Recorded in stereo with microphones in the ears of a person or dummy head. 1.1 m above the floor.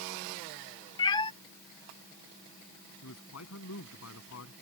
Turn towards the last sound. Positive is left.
turn(degrees=75)  # may be behind; listen again after turning